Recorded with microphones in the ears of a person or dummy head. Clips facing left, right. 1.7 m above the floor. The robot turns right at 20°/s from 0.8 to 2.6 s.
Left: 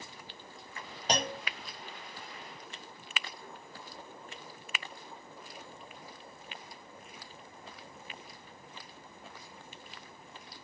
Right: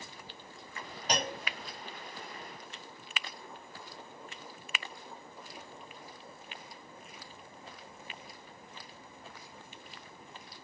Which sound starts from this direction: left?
A clunk, at 1.1 s.